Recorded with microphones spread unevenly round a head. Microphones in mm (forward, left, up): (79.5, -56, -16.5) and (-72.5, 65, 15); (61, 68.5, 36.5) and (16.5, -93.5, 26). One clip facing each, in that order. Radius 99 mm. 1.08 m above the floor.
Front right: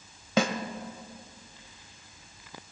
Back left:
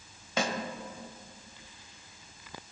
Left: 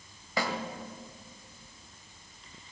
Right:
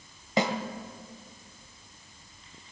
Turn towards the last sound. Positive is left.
turn(degrees=-40)